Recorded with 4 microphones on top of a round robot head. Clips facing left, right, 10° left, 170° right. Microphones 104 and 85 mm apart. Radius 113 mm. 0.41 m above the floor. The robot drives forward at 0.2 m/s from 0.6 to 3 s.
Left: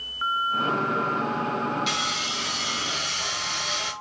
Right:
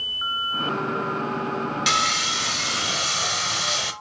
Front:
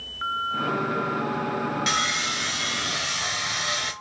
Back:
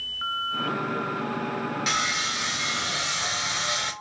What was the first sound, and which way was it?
Sawing, 85° right.